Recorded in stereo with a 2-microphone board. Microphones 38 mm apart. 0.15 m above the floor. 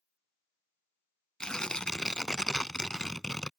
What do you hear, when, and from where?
1.4 s tearing paper: 20° left (ahead or behind)